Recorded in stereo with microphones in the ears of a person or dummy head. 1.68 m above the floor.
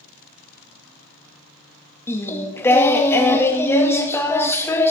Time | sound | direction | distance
2.1 | singing | 15° left (ahead or behind) | 0.7 m